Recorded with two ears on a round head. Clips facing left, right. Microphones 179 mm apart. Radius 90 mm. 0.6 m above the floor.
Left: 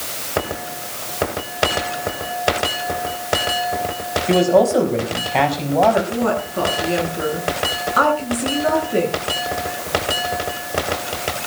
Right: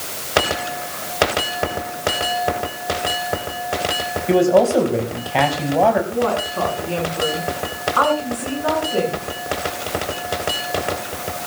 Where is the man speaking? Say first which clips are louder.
Even; centre (ahead or behind), 5 m.